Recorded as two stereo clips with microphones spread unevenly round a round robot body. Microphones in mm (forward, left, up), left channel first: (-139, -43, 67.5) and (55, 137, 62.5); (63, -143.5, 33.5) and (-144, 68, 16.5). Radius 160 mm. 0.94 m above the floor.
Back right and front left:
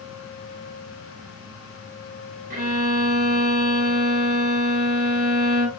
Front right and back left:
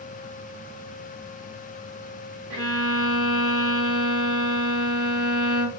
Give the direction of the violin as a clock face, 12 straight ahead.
9 o'clock.